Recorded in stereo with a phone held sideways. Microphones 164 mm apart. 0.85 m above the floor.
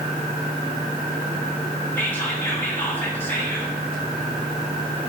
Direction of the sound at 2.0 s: 15° left (ahead or behind).